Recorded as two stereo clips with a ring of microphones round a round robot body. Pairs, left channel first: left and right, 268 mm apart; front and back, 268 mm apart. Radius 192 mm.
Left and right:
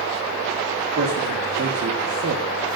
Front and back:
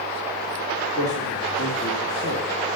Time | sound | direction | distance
1.0 | a man speaking | 50° right | 1.8 m